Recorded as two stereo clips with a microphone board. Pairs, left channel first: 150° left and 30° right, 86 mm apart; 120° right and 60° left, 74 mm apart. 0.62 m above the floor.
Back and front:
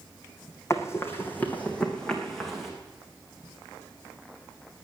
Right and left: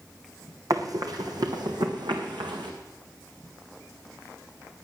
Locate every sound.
0.7 s running footsteps: 95° left, 2.5 m; by 2.7 s 60° left, 3.5 m